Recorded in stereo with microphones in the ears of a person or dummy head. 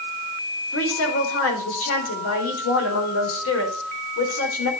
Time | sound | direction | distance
0.7 | a woman speaking | 75° left (ahead or behind) | 4.5 m